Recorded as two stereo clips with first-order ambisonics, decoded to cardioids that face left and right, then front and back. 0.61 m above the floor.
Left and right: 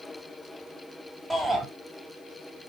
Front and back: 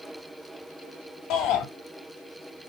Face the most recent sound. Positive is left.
turn(degrees=0)